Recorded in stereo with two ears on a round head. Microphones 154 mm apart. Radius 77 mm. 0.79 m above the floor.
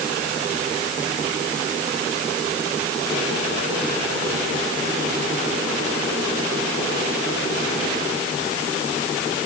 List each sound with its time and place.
Only background noise.